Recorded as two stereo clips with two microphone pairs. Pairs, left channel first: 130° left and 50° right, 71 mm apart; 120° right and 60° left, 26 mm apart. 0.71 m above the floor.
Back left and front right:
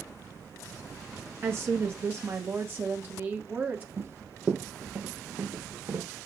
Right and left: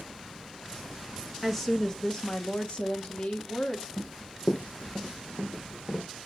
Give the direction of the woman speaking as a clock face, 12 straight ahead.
2 o'clock.